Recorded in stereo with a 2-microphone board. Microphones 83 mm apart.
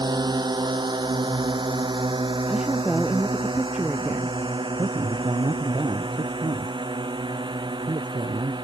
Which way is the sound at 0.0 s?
65° right (ahead or behind).